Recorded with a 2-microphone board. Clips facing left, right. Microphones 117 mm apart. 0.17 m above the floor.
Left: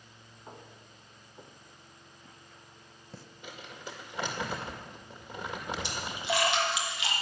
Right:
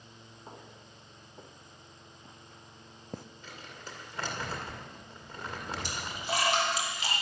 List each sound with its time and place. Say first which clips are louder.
0.5 s footsteps: left 1 dB; 10° right (ahead or behind), 2 m; by 3.2 s 50° right (ahead or behind), 0.7 m
3.4 s crumpling: left 2 dB; 15° left (ahead or behind), 2 m
5.8 s a splash: left 2 dB; 40° right (ahead or behind), 3 m